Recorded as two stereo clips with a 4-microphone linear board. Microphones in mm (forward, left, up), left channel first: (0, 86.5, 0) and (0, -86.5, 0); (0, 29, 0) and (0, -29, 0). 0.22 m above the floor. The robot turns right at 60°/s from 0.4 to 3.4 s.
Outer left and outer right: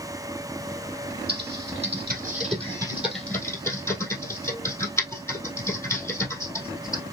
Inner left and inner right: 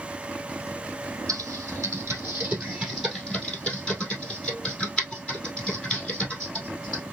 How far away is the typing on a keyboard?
About 1.9 m.